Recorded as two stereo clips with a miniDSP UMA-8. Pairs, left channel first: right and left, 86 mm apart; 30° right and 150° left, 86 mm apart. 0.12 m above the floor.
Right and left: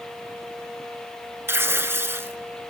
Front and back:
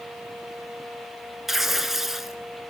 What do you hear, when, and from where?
1.5 s tearing paper: 70° left, 0.7 m